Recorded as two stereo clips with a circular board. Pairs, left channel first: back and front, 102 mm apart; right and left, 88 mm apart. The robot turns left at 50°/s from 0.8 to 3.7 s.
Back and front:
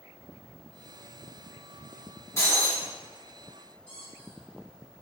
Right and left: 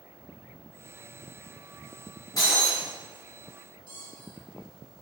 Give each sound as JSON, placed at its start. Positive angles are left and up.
{"t": 2.4, "sound": "breaking glass", "azimuth_deg": -125, "distance_m": 1.8}
{"t": 3.9, "sound": "a squeak", "azimuth_deg": 110, "distance_m": 1.9}